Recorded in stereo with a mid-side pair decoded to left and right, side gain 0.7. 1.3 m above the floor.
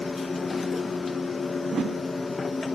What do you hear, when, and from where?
0.0 s a machine running: 20° left, 1.0 m
1.6 s a whoosh: 40° right, 1.4 m